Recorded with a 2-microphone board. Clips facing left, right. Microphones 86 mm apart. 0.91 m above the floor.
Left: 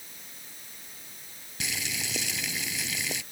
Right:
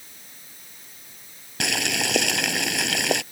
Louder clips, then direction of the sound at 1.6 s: Right 10 dB; 80° right.